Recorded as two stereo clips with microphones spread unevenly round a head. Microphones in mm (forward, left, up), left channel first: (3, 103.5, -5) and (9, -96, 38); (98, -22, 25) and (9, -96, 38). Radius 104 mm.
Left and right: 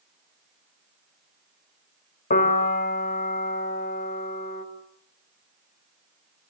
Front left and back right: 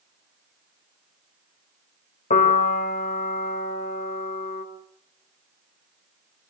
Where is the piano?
40° left, 3.5 m.